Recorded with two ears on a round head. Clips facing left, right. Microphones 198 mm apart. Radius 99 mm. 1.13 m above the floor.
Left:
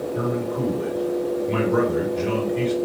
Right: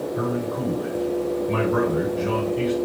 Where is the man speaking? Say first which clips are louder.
Left 2 dB; 40° left (ahead or behind), 2.5 m.